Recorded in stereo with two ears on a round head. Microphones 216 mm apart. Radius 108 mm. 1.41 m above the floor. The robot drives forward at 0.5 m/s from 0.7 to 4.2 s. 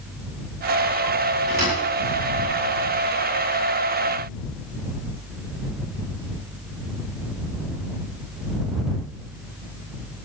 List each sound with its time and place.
1.5 s a thud: 45° right (ahead or behind), 8.5 m; by 1.8 s 40° right (ahead or behind), 8.5 m